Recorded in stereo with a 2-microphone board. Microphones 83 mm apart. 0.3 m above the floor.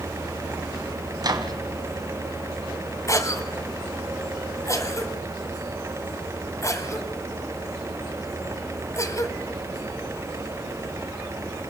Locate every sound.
1.2 s a microwave: 50° right (ahead or behind), 2.5 m
3.1 s a cough: 35° left (ahead or behind), 1.9 m